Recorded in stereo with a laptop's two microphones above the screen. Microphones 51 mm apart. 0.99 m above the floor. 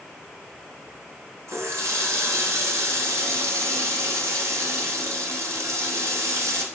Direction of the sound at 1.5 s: 80° right.